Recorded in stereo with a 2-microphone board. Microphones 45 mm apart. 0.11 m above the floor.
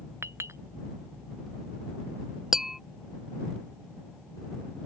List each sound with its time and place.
0.2 s a clink: 70° right (ahead or behind)
2.5 s tapping: 5° right (ahead or behind)